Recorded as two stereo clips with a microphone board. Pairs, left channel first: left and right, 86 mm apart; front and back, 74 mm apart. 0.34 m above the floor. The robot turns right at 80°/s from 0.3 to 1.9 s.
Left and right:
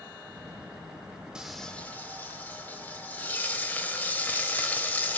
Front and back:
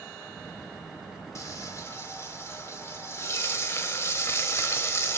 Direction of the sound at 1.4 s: 15° right.